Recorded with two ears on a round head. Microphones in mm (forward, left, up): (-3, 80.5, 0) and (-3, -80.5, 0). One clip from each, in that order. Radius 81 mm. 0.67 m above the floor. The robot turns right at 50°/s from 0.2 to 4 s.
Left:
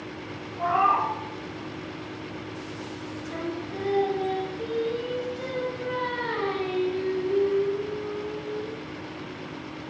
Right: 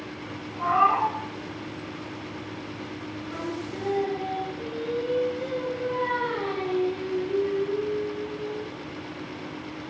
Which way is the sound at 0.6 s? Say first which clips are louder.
Right 1 dB; 10° right (ahead or behind).